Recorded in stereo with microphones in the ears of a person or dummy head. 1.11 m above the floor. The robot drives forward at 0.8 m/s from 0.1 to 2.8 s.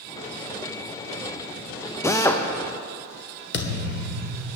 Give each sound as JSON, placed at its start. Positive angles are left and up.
{"t": 2.0, "sound": "a drill", "side_deg": 15, "distance_m": 0.5}
{"t": 3.5, "sound": "a thud", "side_deg": 60, "distance_m": 1.4}